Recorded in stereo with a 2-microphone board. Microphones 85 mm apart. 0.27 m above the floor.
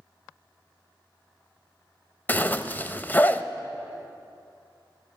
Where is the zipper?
20° left (ahead or behind), 0.5 m.